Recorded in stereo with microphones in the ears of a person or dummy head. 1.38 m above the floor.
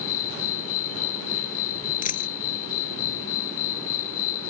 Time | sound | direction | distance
0.0 | an insect | 50° left (ahead or behind) | ?
2.0 | a dropped coin | 40° left (ahead or behind) | ?